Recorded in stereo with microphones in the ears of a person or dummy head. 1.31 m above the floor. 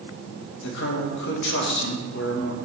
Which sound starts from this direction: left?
A man speaking, at 0.6 s.